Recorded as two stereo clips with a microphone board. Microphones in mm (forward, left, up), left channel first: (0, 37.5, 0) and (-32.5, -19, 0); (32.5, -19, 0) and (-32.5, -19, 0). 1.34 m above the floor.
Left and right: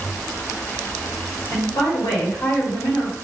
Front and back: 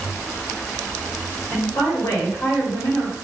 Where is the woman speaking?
50° left, 1.3 m.